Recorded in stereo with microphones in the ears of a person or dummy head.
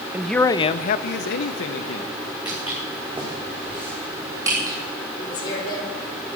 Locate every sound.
0.1 s a man speaking: 5° right (ahead or behind), 0.6 m; by 2.1 s 85° left, 1.4 m
2.5 s footsteps: 5° right (ahead or behind), 6 m; by 4.8 s 20° right (ahead or behind), 3 m
5.2 s a woman speaking: 45° left (ahead or behind), 4.5 m